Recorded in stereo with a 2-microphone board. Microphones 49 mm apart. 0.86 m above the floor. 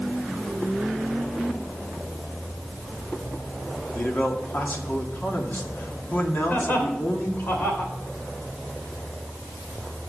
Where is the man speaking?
50° left (ahead or behind), 2 m.